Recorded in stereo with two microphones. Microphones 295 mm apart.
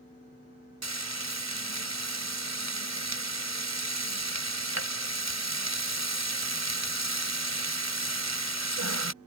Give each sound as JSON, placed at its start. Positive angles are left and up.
{"t": 0.8, "sound": "frying", "side_deg": -65}